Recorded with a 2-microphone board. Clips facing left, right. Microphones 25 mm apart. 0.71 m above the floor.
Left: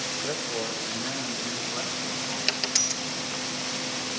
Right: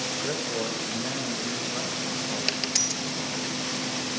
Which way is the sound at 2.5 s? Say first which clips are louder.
Left 2 dB; 5° left (ahead or behind).